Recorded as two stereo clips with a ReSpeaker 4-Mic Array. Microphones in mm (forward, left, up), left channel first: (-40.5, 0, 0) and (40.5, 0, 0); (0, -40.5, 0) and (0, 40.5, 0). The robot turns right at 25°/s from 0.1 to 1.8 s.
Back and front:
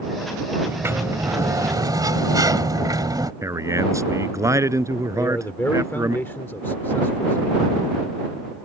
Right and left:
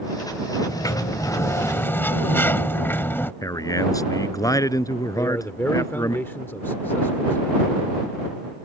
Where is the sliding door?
60° right; by 3.3 s 30° right.